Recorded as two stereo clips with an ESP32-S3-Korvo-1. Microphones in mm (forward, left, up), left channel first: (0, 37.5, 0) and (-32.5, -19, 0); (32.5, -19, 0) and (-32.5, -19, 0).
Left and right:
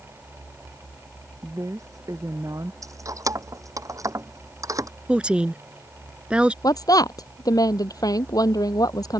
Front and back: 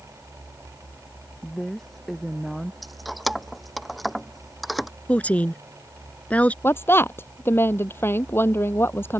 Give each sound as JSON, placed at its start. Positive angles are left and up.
{"t": 1.4, "sound": "a woman speaking", "azimuth_deg": -85}
{"t": 2.8, "sound": "keys jangling", "azimuth_deg": -90}
{"t": 5.1, "sound": "a woman speaking", "azimuth_deg": -55}
{"t": 6.6, "sound": "a woman speaking", "azimuth_deg": 50}